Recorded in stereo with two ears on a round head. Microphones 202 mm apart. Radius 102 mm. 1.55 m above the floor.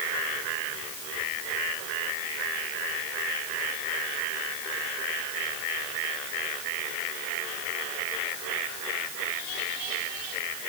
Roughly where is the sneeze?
I don't hear a sneeze.